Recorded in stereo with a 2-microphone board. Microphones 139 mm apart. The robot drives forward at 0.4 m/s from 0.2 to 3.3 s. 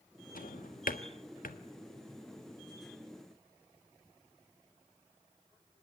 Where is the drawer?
75° left (ahead or behind), 1.5 m.